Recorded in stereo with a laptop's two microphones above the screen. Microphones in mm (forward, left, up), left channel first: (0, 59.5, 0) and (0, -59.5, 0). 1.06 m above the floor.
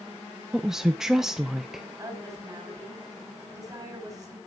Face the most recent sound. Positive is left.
turn(degrees=-30)  # may be behind; listen again after turning